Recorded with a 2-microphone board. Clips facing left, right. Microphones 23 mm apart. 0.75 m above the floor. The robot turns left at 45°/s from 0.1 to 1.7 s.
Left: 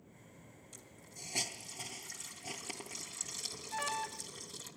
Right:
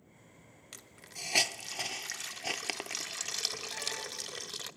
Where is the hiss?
70° right (ahead or behind), 0.7 m; by 4.7 s 65° right (ahead or behind), 0.7 m.